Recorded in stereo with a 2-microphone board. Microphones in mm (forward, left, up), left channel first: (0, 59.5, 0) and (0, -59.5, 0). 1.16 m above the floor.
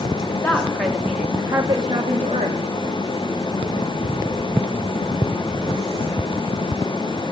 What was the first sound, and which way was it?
A woman speaking, 15° left (ahead or behind).